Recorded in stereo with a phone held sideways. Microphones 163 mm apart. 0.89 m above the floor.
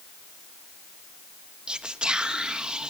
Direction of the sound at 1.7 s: 5° right (ahead or behind).